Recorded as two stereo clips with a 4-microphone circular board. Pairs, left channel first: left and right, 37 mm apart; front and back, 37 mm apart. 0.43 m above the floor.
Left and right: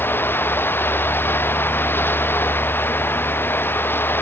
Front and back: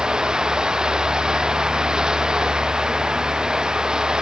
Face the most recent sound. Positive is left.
turn(degrees=110)